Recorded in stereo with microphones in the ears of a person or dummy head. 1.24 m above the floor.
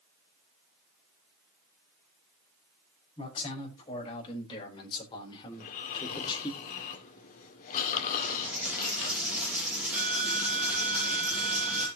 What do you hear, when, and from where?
3.2 s a man speaking: 30° left (ahead or behind), 5.5 m; by 6.5 s 20° left (ahead or behind), 1.7 m
5.5 s snoring: 50° left (ahead or behind), 2 m
8.2 s a dropped coin: 10° right (ahead or behind), 5.5 m